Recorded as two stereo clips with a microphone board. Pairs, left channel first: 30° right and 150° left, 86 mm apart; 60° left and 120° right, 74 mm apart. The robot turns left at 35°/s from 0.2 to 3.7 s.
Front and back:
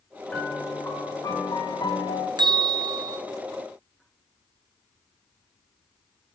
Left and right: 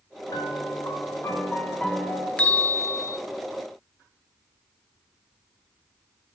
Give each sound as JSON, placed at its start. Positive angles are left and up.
{"t": 0.3, "sound": "a piano", "azimuth_deg": 45, "distance_m": 1.6}
{"t": 2.4, "sound": "a bell", "azimuth_deg": 130, "distance_m": 0.7}